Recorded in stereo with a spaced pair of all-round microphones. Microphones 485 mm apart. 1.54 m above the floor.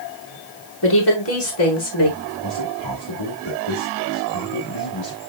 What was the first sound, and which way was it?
A woman speaking, 55° left (ahead or behind).